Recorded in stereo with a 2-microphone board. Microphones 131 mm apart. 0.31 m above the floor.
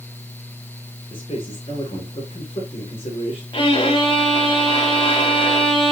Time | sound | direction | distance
1.1 | a man speaking | 45° left (ahead or behind) | 4.5 m
3.5 | a violin | 40° left (ahead or behind) | 2.5 m